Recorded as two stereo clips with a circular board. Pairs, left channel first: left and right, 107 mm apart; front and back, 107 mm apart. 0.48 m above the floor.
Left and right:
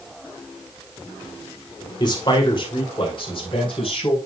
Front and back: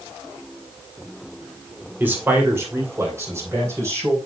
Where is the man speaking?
115° left, 1.9 m; by 4.2 s 120° left, 4 m.